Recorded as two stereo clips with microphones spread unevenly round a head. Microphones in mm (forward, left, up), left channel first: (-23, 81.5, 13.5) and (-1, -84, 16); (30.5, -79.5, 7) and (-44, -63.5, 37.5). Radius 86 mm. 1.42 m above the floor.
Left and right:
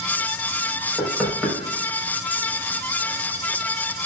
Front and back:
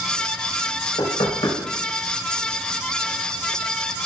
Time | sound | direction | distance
1.0 | knocking | 5° left | 5 m